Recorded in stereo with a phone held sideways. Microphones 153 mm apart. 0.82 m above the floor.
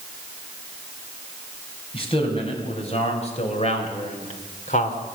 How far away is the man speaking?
About 6 m.